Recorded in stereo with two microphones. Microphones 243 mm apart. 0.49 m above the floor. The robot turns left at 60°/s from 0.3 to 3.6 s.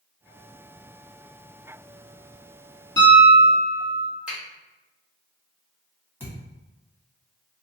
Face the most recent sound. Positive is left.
turn(degrees=-10)  # may be behind; listen again after turning